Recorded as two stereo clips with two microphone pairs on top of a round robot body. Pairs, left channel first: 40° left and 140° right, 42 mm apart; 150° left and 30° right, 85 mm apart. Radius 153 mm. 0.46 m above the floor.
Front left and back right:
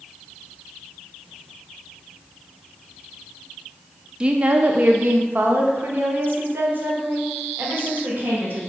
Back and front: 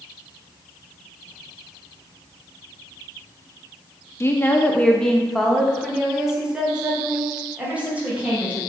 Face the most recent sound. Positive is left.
turn(degrees=-105)